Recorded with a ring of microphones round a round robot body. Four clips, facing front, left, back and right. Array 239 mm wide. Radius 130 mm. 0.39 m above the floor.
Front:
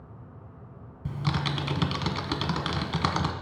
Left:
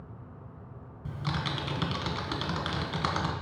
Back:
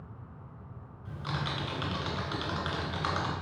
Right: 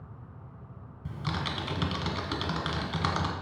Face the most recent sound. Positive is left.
turn(degrees=0)